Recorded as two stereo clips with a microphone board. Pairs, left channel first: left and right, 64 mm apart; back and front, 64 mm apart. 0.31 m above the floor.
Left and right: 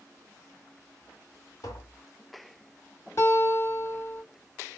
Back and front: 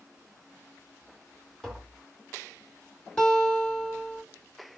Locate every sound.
1.6 s tapping: 100° left, 2.0 m
3.2 s a guitar: 110° left, 2 m